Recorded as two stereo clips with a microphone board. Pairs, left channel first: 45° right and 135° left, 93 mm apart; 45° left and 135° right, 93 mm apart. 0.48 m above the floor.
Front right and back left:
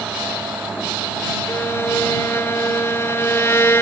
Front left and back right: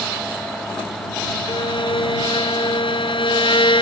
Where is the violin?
20° left.